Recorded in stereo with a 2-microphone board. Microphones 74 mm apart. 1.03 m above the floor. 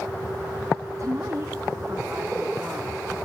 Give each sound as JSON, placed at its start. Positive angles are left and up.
{"t": 1.0, "sound": "a woman speaking", "side_deg": -50, "distance_m": 2.5}